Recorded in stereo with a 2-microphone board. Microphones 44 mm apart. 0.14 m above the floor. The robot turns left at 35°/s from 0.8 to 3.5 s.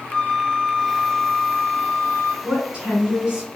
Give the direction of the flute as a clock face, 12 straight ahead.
7 o'clock.